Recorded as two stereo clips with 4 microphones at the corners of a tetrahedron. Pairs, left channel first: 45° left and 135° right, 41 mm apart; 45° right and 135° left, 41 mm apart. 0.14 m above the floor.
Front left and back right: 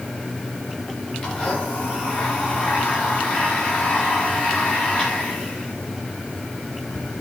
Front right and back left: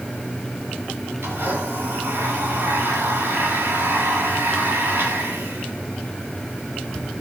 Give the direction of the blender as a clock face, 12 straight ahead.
8 o'clock.